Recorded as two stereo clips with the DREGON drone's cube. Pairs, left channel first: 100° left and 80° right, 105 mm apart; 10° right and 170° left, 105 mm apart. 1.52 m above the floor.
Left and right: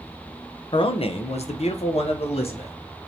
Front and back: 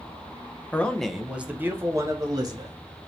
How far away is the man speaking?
About 0.7 m.